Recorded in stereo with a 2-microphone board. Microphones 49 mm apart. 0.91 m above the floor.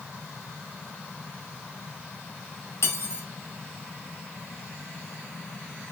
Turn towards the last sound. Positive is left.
turn(degrees=55)  # may be behind; listen again after turning